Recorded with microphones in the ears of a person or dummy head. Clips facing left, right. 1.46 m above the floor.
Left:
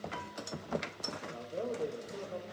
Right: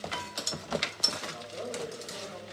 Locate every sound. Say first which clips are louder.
1.3 s a man speaking: left 4 dB; 30° left (ahead or behind), 0.8 m